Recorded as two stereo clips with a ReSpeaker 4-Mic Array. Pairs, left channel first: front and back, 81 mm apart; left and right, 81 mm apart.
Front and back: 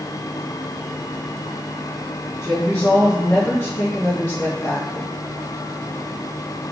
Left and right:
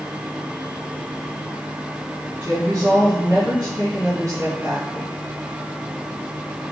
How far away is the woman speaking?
About 1.8 m.